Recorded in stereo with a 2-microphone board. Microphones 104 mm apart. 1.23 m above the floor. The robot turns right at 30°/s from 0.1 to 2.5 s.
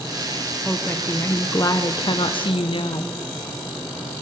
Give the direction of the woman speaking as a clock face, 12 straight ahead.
12 o'clock.